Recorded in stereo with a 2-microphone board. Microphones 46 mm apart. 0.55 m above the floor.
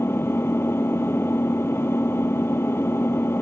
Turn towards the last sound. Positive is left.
turn(degrees=65)  # may be behind; listen again after turning